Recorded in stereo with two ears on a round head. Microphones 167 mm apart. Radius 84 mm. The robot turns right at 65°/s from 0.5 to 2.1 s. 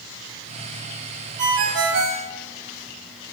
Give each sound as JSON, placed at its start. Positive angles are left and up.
{"t": 1.4, "sound": "a ringtone", "azimuth_deg": -145, "distance_m": 4.0}